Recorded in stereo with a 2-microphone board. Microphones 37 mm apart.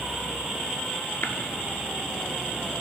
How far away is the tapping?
About 0.9 m.